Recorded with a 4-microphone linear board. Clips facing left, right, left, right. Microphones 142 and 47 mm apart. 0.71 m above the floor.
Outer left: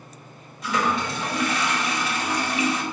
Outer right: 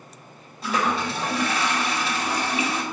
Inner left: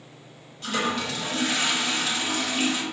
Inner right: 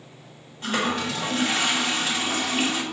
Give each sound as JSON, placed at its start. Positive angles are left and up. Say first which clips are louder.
{"t": 0.6, "sound": "a toilet flushing", "louder": "even, inner right 2 dB", "side_deg": -30, "distance_m": 1.7}